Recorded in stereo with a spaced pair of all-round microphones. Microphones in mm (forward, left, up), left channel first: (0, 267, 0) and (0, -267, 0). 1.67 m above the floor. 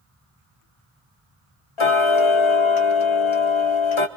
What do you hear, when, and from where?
1.8 s ticking: 60° left (ahead or behind), 1.2 m